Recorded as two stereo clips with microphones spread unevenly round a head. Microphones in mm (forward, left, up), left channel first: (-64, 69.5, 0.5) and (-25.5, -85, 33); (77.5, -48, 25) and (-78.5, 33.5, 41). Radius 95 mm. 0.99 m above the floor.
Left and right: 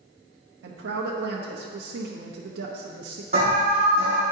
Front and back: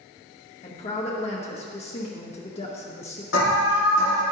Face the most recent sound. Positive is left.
turn(degrees=-15)